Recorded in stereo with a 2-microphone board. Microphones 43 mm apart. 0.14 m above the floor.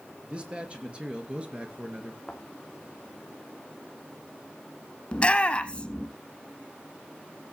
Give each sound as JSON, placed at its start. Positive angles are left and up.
{"t": 0.2, "sound": "a man speaking", "side_deg": -25, "distance_m": 3.0}
{"t": 2.3, "sound": "a thud", "side_deg": 5, "distance_m": 2.5}
{"t": 5.1, "sound": "a shout", "side_deg": 25, "distance_m": 1.2}